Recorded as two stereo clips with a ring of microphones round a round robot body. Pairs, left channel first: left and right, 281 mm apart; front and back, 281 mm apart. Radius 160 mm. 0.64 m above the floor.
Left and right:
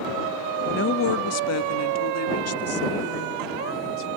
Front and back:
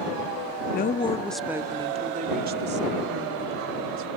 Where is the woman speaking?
45° left; by 4.1 s 135° left.